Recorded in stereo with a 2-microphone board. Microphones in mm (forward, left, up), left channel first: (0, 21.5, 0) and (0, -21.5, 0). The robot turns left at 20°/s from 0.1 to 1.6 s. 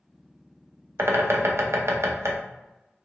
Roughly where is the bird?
Right.